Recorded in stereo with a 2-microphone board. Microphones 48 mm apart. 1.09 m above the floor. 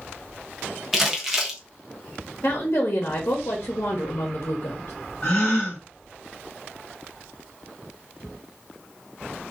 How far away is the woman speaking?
About 0.9 m.